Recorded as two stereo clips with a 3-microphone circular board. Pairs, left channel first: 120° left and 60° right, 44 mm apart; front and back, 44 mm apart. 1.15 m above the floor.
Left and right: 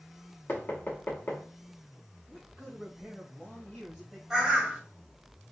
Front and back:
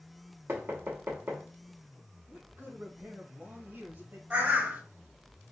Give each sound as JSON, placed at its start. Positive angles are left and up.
{"t": 0.5, "sound": "knocking", "azimuth_deg": 160, "distance_m": 1.3}
{"t": 2.3, "sound": "a man speaking", "azimuth_deg": -150, "distance_m": 1.6}
{"t": 4.3, "sound": "a bird", "azimuth_deg": -145, "distance_m": 1.5}